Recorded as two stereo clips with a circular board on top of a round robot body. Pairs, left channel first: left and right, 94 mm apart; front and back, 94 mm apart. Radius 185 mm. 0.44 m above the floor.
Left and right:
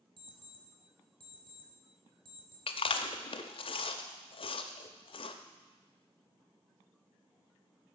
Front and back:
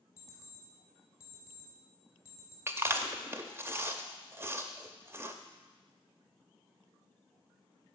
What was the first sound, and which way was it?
An alarm clock, 60° right.